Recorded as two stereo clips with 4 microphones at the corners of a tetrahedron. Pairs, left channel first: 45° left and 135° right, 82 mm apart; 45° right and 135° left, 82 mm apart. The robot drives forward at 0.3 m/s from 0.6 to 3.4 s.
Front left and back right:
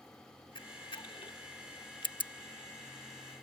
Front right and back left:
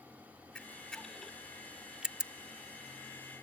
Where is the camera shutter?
35° left; by 2.3 s 60° left.